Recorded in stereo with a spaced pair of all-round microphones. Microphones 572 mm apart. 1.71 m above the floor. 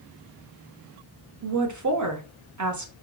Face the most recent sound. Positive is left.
turn(degrees=-35)  # may be behind; listen again after turning